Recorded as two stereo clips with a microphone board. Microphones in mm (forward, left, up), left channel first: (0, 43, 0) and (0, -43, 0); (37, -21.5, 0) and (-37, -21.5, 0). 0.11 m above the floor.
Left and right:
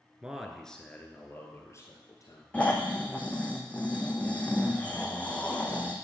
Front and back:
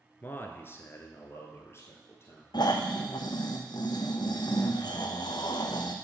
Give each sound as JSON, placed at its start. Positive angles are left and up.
{"t": 0.2, "sound": "a man speaking", "azimuth_deg": -25, "distance_m": 1.2}
{"t": 2.5, "sound": "snoring", "azimuth_deg": 15, "distance_m": 1.4}